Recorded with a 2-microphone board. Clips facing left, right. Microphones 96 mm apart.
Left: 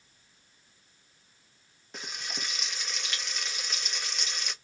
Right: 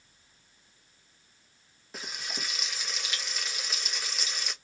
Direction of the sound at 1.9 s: Centre (ahead or behind).